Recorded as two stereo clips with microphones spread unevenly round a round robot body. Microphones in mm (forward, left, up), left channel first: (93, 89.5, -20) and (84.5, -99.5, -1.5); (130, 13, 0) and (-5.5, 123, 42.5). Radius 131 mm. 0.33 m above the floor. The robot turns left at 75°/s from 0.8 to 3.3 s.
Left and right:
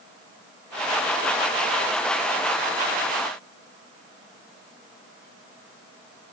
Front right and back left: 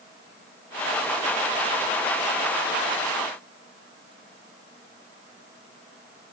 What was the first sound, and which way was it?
Only background noise.